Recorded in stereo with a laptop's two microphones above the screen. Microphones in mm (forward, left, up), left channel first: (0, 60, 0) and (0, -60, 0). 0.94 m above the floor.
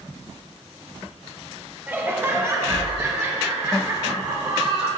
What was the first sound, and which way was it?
Laughter, 15° right (ahead or behind).